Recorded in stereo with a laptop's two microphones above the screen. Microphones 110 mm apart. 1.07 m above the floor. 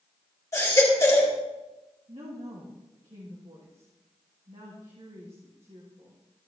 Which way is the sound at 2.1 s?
60° right (ahead or behind).